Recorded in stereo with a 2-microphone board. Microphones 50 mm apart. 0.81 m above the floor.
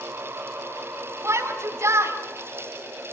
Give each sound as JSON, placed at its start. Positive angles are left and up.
{"t": 1.2, "sound": "a shout", "side_deg": -60, "distance_m": 6.0}